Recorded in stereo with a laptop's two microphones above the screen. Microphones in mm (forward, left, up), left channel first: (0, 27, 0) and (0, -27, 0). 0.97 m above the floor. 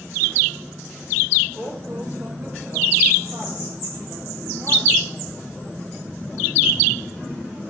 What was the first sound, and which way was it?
A woman speaking, 40° right (ahead or behind).